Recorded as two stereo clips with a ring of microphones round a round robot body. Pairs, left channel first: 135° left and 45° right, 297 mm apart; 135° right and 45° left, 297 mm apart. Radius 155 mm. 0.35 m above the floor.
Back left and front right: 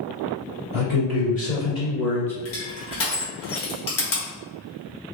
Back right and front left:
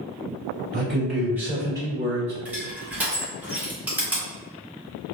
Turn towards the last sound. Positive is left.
turn(degrees=130)